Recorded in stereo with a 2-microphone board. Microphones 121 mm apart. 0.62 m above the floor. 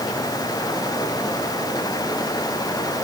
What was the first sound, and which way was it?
Only background noise.